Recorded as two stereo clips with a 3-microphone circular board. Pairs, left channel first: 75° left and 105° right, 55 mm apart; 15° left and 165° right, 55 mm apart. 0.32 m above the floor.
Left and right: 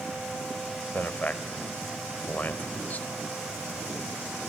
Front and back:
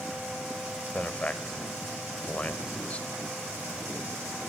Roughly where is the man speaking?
Ahead left.